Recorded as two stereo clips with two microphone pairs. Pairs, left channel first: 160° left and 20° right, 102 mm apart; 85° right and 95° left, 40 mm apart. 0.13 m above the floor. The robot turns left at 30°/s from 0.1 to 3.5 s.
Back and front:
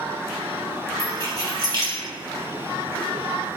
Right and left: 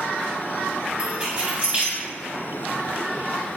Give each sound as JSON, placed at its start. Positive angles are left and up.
{"t": 1.0, "sound": "keys jangling", "azimuth_deg": 150, "distance_m": 1.4}